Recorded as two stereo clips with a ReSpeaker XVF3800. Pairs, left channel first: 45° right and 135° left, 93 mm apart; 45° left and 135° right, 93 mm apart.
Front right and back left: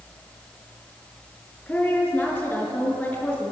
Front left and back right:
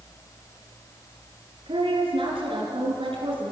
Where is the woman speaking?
120° right, 4.5 m.